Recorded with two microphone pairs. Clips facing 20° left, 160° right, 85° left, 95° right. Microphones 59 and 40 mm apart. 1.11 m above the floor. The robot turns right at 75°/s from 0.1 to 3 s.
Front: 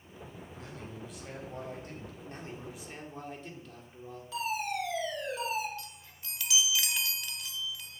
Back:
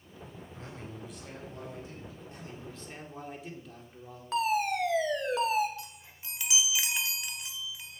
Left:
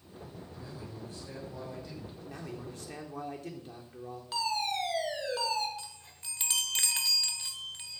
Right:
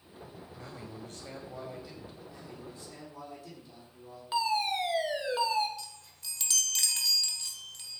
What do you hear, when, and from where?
0.5 s a man speaking: 115° right, 6 m; by 2.1 s 5° left, 6 m
2.2 s a man speaking: 55° left, 3.5 m; by 4.2 s 115° left, 3.5 m
4.3 s a fire alarm: 165° right, 2.5 m
5.8 s a chime: 135° left, 1.3 m